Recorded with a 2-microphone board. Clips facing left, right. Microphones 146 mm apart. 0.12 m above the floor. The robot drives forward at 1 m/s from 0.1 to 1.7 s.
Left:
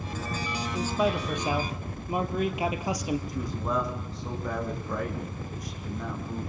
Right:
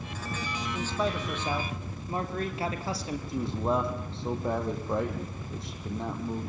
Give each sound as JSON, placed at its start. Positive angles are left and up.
{"t": 0.7, "sound": "a man speaking", "side_deg": 10, "distance_m": 3.0}
{"t": 3.3, "sound": "a man speaking", "side_deg": -25, "distance_m": 4.5}